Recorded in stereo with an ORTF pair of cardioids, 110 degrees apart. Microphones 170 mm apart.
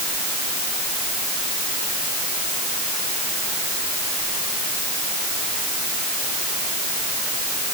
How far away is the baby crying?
I don't hear a baby crying.